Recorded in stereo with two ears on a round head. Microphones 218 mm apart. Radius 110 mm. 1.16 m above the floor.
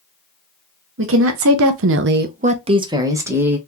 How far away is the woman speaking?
About 0.8 m.